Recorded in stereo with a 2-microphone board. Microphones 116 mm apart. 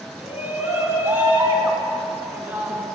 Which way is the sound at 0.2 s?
20° right (ahead or behind).